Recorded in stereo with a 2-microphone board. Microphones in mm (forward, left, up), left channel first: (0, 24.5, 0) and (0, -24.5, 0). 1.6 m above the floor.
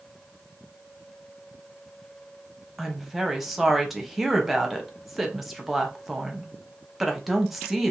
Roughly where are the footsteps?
No footsteps in this recording.